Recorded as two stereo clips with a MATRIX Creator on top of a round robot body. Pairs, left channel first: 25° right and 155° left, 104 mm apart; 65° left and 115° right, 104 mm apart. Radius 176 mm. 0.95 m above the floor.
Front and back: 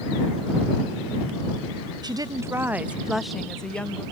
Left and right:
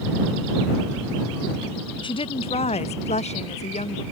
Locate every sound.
2.0 s a woman speaking: 110° left; by 4.0 s 55° left